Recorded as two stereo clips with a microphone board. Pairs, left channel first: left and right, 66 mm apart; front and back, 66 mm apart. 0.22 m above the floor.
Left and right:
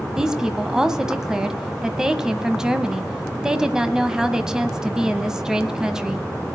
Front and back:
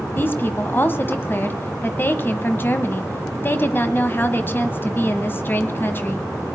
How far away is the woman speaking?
About 1.4 m.